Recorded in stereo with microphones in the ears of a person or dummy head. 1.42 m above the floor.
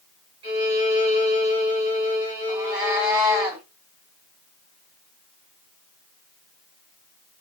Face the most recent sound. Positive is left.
turn(degrees=-5)  # may be behind; listen again after turning